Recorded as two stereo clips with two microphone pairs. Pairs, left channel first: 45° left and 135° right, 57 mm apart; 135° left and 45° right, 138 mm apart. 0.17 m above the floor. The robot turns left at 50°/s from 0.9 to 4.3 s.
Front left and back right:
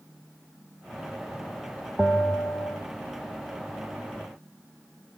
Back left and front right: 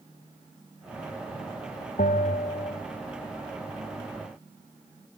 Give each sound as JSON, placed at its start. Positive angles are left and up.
{"t": 2.0, "sound": "a bell", "azimuth_deg": 125, "distance_m": 1.5}